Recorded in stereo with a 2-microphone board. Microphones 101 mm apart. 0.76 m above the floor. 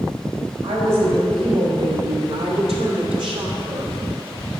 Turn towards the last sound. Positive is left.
turn(degrees=-55)  # may be behind; listen again after turning